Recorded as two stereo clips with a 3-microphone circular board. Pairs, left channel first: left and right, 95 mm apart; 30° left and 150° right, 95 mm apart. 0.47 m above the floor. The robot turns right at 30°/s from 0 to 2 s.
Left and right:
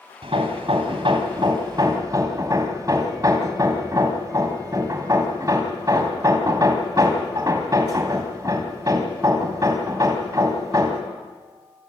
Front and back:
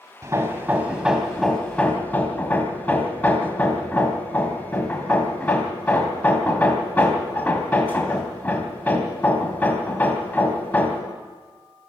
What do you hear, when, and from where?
0.2 s hammering: 95° right, 2.5 m; by 11.0 s 40° right, 2.5 m